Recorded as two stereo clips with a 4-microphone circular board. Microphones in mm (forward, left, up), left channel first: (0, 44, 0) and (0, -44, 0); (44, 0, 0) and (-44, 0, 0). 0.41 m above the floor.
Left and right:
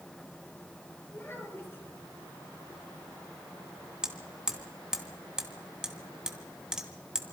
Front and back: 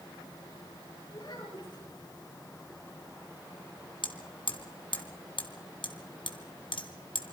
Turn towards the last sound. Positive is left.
turn(degrees=-10)